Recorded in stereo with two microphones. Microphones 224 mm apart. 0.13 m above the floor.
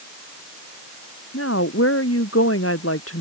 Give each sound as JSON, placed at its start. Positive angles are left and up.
{"t": 1.3, "sound": "a woman speaking", "side_deg": 85}